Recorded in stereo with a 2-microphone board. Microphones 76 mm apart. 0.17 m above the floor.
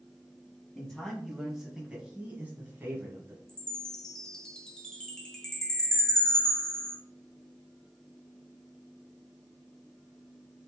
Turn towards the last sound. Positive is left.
turn(degrees=10)  # may be behind; listen again after turning